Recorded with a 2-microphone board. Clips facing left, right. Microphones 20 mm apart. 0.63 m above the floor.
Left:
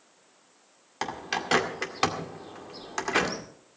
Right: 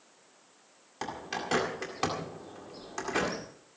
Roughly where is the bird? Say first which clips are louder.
Left 5 dB; left.